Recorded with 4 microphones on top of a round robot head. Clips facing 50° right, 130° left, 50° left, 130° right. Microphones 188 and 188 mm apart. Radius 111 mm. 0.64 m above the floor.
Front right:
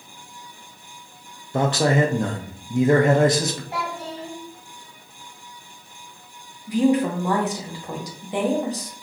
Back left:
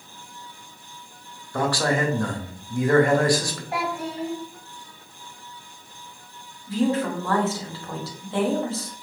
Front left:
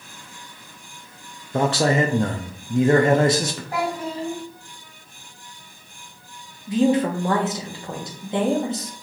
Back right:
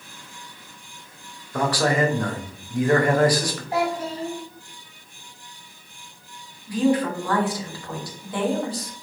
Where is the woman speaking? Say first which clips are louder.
Front right 4 dB, front left 2 dB; 10° left, 1.2 m.